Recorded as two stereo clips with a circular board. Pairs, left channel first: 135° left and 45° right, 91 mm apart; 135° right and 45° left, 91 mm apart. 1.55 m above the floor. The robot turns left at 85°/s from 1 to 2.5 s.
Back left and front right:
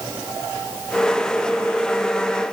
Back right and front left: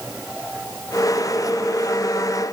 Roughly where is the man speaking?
No man speaking in this recording.